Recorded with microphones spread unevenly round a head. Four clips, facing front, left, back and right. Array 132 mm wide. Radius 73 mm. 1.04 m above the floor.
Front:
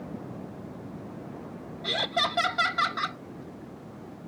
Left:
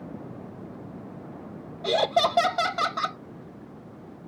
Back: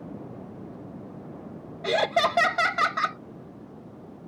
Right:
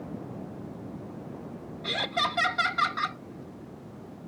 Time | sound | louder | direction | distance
1.8 | laughter | left 8 dB, back 7 dB | 155° left | ?